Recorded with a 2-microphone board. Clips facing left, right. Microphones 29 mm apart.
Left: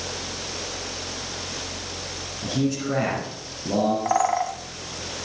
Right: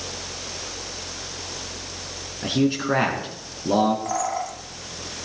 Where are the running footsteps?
No running footsteps in this recording.